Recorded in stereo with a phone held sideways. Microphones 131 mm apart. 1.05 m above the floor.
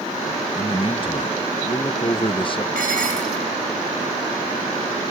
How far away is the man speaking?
About 0.8 m.